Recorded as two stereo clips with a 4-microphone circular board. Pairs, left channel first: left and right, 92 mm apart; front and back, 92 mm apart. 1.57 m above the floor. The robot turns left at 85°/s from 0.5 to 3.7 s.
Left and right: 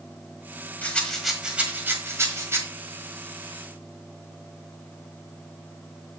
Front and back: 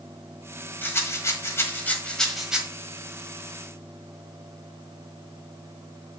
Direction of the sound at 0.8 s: 40° left.